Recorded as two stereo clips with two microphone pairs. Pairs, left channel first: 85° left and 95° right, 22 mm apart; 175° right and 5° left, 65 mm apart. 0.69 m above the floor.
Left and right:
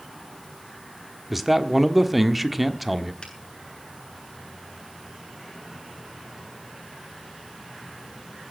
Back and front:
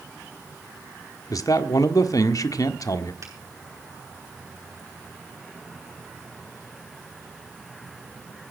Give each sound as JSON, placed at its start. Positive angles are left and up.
{"t": 1.3, "sound": "a man speaking", "azimuth_deg": 180, "distance_m": 1.3}
{"t": 3.2, "sound": "a finger snap", "azimuth_deg": 35, "distance_m": 7.5}